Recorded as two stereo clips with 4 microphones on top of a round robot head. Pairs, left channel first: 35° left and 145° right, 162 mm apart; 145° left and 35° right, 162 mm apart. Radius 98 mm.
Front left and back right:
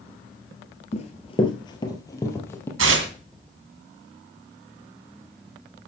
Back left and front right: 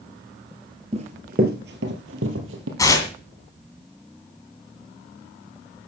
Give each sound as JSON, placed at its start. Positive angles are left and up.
{"t": 0.9, "sound": "running footsteps", "azimuth_deg": 5, "distance_m": 1.5}
{"t": 2.8, "sound": "tearing paper", "azimuth_deg": -145, "distance_m": 2.0}